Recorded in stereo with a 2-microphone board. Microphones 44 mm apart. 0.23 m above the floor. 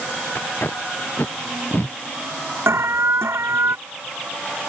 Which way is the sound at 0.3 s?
45° left (ahead or behind).